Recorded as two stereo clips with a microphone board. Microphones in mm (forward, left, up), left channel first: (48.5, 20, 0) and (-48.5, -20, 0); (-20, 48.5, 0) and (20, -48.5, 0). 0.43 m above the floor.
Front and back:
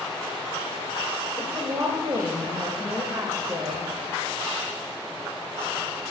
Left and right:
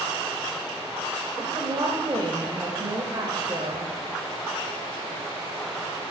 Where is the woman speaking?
105° right, 1.3 m.